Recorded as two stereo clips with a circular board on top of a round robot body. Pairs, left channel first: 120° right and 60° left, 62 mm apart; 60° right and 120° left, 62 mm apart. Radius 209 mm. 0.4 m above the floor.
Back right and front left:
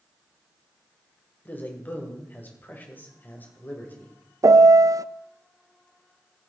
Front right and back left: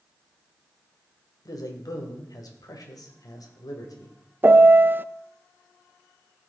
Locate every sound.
1.4 s a man speaking: 60° right, 2.5 m
4.4 s a piano: 65° left, 0.5 m